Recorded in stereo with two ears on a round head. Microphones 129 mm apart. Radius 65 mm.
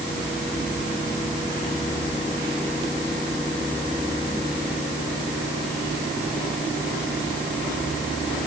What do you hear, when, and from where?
Only background noise.